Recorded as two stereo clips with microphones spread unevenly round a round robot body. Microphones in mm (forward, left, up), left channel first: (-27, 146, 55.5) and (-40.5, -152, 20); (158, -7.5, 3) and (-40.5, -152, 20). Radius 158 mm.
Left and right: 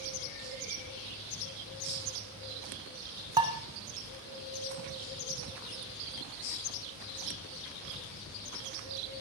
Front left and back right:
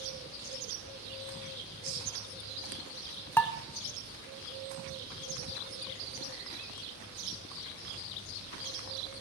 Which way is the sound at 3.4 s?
35° right.